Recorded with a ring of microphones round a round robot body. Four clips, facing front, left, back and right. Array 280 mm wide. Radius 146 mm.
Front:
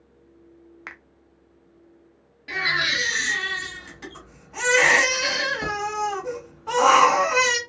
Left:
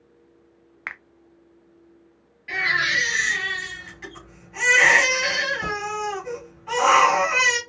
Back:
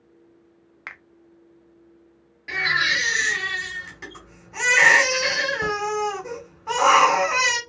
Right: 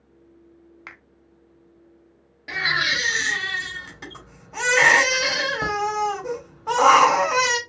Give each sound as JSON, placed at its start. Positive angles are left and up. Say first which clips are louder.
{"t": 0.9, "sound": "a finger snap", "louder": "left 9 dB, back 2 dB", "azimuth_deg": 95, "distance_m": 0.6}
{"t": 2.5, "sound": "a baby crying", "louder": "left 1 dB, back 2 dB", "azimuth_deg": -95, "distance_m": 1.7}